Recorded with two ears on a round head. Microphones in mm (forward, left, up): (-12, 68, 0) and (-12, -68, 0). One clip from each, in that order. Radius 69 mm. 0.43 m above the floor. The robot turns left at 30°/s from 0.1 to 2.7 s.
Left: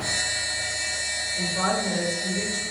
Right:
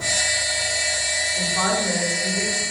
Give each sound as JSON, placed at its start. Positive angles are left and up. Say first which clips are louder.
{"t": 1.4, "sound": "a woman speaking", "louder": "right 3 dB", "azimuth_deg": -115, "distance_m": 1.3}